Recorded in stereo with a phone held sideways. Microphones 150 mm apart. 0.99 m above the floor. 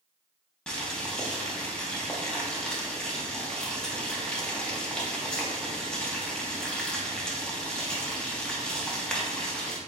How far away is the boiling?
About 1.0 m.